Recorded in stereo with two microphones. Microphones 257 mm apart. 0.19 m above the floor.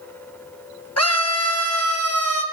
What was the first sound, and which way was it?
A scream, 65° left (ahead or behind).